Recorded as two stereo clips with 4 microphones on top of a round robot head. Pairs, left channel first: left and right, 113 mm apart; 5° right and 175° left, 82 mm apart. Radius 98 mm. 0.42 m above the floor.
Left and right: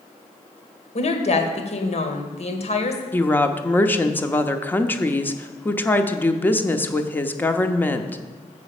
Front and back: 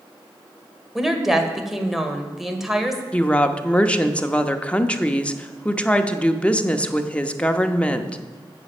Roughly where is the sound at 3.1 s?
Ahead left.